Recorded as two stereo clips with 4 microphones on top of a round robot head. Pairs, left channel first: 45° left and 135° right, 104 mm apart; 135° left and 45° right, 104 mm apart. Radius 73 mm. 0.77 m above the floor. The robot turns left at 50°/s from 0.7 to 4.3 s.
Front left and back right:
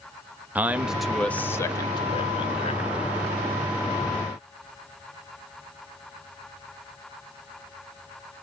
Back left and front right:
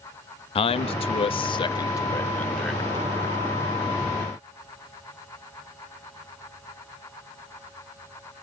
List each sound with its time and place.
0.6 s a man speaking: 150° left, 0.6 m; by 2.8 s 40° left, 0.6 m